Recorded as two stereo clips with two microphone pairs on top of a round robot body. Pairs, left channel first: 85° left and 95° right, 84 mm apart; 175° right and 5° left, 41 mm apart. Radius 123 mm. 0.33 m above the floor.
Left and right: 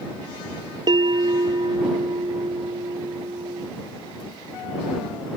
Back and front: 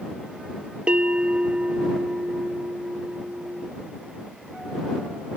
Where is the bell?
60° right.